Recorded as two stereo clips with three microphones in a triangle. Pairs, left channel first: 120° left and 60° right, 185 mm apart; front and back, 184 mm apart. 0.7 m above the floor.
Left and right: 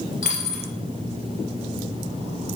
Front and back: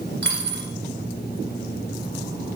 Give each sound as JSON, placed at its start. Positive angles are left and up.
{"t": 0.2, "sound": "a dropped coin", "azimuth_deg": 165, "distance_m": 2.0}